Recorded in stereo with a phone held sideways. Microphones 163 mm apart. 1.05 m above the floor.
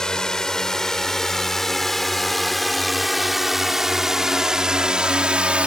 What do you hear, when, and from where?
0.0 s a drone: 5° left (ahead or behind); by 5.7 s 5° right (ahead or behind)